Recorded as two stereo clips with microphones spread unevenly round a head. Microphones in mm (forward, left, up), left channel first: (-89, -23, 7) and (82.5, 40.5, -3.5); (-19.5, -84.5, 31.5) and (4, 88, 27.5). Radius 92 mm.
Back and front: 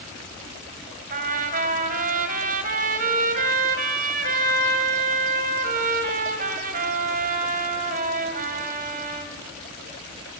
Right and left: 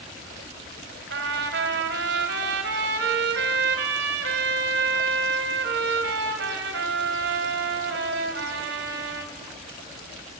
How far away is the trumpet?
About 3 m.